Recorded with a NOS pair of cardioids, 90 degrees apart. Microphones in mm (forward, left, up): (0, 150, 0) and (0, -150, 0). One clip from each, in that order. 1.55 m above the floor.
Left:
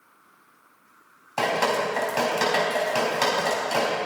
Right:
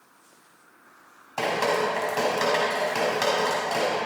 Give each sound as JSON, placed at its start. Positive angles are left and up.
{"t": 1.4, "sound": "dripping", "azimuth_deg": 25, "distance_m": 4.5}